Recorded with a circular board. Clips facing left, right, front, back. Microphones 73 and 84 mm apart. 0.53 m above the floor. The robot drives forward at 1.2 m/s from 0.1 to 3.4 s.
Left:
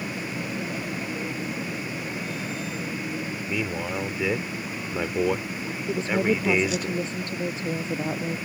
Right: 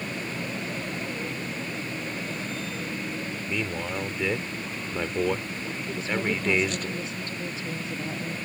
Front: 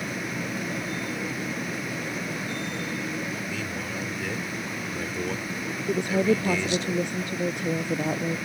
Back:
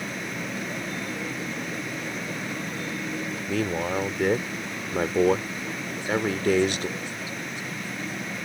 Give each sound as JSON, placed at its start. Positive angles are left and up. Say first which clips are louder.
{"t": 3.5, "sound": "a man speaking", "louder": "left 2 dB, back 6 dB", "azimuth_deg": 170}
{"t": 5.9, "sound": "a woman speaking", "louder": "left 5 dB, front 5 dB", "azimuth_deg": 30}